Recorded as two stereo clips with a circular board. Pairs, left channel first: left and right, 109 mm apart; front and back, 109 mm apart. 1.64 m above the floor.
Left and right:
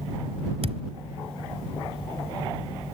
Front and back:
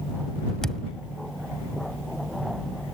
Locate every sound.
0.6 s a thud: 85° right